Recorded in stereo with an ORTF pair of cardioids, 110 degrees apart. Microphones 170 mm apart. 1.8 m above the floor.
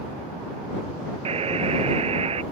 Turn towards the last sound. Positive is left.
turn(degrees=-35)